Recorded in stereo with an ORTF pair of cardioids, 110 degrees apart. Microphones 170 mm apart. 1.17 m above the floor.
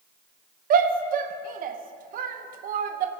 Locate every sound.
0.7 s a shout: 55° right, 0.8 m